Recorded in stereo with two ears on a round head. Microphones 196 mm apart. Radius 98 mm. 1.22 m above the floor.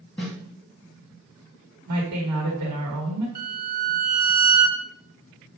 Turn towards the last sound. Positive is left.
turn(degrees=-40)  # may be behind; listen again after turning